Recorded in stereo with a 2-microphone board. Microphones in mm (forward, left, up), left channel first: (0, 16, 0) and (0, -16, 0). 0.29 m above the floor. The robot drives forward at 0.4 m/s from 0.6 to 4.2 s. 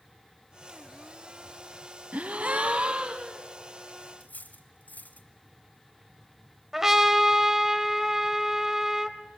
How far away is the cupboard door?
I don't hear a cupboard door.